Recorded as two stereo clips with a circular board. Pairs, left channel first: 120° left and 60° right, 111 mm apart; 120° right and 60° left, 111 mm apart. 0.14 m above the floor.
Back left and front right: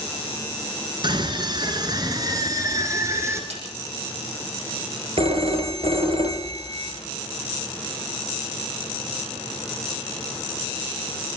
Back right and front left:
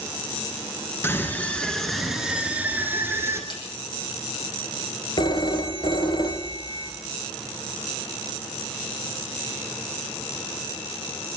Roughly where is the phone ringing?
Right.